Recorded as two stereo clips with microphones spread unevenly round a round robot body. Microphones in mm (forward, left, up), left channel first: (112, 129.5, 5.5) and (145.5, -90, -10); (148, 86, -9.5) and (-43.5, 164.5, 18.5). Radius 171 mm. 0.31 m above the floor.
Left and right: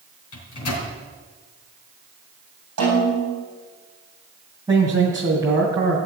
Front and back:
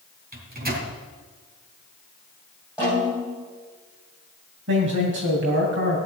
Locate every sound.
0.3 s a microwave: 110° left, 3 m
2.8 s a snare drum: 115° right, 6.5 m
4.7 s a man speaking: 160° right, 2.5 m